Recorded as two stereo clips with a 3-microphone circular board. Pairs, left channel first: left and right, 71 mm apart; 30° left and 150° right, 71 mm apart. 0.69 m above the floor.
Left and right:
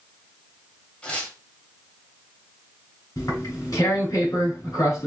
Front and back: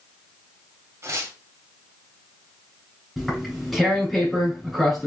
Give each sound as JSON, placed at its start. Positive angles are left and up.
{"t": 1.0, "sound": "tearing paper", "azimuth_deg": 165, "distance_m": 1.3}
{"t": 3.2, "sound": "tearing paper", "azimuth_deg": 120, "distance_m": 3.0}